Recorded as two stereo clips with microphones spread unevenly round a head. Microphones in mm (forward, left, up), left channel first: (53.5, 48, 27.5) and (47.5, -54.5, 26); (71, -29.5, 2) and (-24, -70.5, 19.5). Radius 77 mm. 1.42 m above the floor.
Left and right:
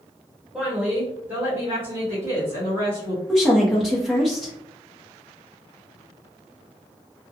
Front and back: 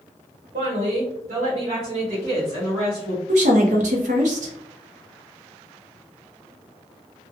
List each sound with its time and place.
0.5 s a woman speaking: 175° right, 1.0 m; by 3.2 s 125° right, 1.7 m
3.3 s a woman speaking: 175° left, 0.6 m